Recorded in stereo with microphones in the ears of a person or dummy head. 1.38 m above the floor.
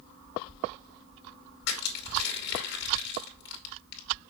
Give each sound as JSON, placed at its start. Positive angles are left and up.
{"t": 1.7, "sound": "crushing", "side_deg": 65, "distance_m": 2.5}